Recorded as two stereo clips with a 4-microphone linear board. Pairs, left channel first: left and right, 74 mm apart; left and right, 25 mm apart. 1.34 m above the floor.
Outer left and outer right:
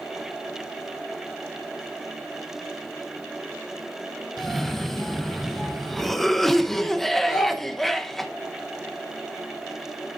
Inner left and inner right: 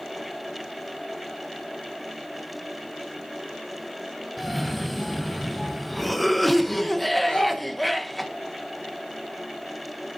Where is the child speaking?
55° left (ahead or behind), 1.4 m.